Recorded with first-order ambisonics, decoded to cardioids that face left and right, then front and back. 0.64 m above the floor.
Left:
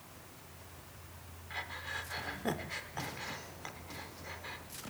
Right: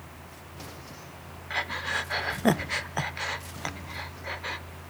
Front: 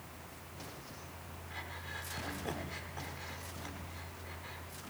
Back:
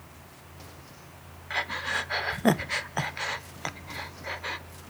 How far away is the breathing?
About 0.6 m.